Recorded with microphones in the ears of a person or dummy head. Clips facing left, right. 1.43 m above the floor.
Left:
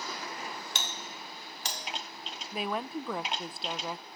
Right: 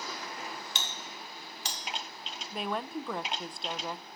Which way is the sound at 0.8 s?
40° left (ahead or behind).